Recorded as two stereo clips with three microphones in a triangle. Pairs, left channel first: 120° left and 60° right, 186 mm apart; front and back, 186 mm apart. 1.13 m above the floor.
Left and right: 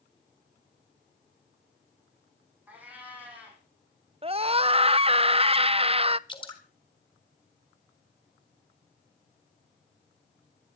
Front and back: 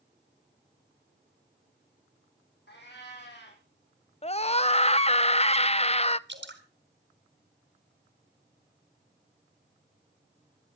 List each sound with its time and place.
2.7 s a cat meowing: 20° left, 6.5 m
4.2 s a scream: 25° right, 0.6 m
6.3 s dripping: 175° right, 4 m